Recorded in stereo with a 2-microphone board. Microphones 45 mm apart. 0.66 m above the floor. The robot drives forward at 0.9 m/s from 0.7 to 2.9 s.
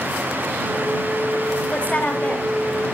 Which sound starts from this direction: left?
A woman speaking, at 1.7 s.